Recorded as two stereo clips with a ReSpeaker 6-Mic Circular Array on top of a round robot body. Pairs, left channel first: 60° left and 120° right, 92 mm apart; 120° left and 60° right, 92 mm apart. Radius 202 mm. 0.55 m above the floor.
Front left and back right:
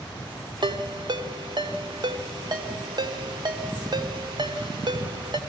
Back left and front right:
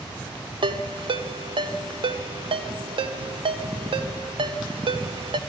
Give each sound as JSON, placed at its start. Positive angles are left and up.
{"t": 0.6, "sound": "a ringtone", "azimuth_deg": -80, "distance_m": 1.6}